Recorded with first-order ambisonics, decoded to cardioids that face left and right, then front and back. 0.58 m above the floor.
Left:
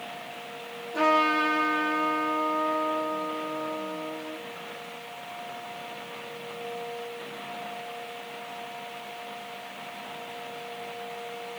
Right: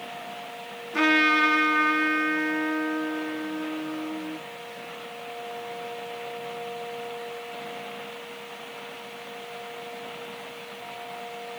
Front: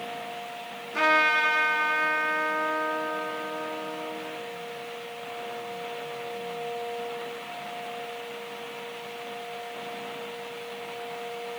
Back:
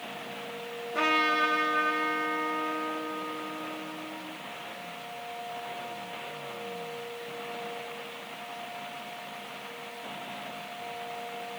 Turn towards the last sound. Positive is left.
turn(degrees=-70)